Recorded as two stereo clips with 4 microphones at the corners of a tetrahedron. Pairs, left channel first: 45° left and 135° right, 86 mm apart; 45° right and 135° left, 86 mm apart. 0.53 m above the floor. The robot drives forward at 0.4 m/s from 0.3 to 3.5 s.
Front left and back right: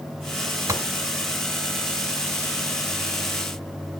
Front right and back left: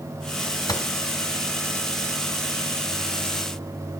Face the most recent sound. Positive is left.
turn(degrees=-125)